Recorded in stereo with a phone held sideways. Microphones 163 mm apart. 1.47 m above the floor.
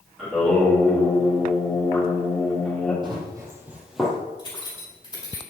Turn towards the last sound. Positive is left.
turn(degrees=25)  # may be behind; listen again after turning